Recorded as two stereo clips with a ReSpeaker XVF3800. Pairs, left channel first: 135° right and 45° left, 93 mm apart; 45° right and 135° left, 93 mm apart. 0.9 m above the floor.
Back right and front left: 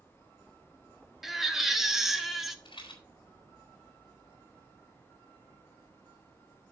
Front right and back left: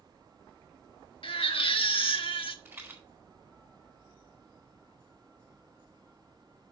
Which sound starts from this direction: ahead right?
A baby crying, at 1.2 s.